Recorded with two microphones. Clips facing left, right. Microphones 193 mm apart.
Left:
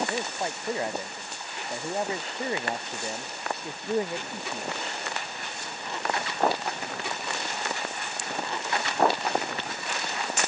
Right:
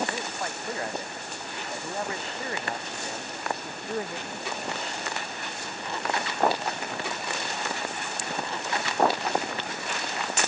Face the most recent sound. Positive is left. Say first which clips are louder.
# left 2 dB
turn(degrees=20)  # may be behind; listen again after turning